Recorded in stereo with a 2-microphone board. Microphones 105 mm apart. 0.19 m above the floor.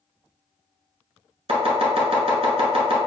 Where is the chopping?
65° right (ahead or behind), 1.2 m.